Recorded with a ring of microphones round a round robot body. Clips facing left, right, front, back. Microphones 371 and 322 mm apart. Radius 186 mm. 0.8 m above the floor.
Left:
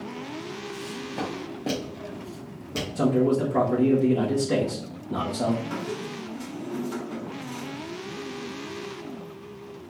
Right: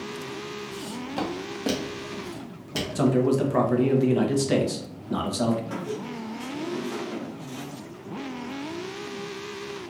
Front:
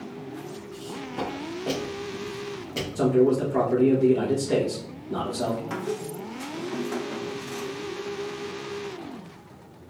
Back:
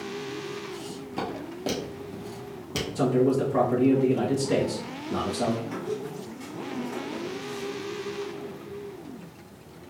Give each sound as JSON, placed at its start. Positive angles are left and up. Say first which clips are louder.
{"t": 0.7, "sound": "footsteps", "louder": "right 3 dB, even", "azimuth_deg": -110, "distance_m": 1.8}
{"t": 3.0, "sound": "a man speaking", "louder": "even, front 2 dB", "azimuth_deg": -100, "distance_m": 1.1}
{"t": 5.7, "sound": "a squeak", "louder": "even, front 1 dB", "azimuth_deg": 10, "distance_m": 1.2}